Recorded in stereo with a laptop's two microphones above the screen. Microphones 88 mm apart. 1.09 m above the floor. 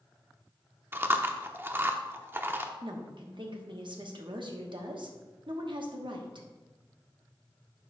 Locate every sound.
0.9 s chewing: 25° right (ahead or behind), 0.6 m
2.8 s a woman speaking: 65° right (ahead or behind), 1.2 m